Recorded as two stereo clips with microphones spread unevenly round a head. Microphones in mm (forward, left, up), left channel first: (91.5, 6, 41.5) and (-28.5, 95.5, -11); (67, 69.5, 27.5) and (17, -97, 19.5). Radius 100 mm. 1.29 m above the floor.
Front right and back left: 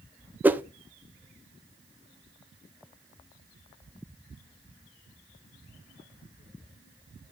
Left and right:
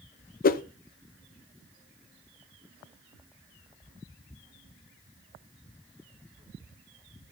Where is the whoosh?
90° left, 0.8 m.